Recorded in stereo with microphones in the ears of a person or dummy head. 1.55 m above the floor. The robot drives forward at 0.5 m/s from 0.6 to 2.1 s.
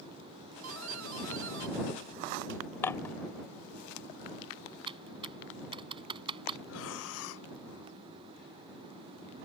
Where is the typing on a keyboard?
30° right (ahead or behind).